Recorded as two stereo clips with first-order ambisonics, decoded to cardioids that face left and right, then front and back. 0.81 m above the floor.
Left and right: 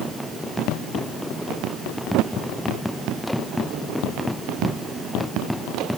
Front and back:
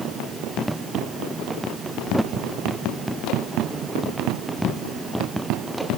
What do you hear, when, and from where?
Only background noise.